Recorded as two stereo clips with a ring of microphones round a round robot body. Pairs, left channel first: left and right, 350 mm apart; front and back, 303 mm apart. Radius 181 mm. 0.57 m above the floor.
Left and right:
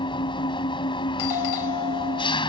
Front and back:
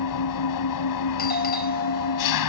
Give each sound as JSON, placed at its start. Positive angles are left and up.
{"t": 0.0, "sound": "an engine running", "azimuth_deg": 15}
{"t": 1.2, "sound": "a doorbell", "azimuth_deg": 60}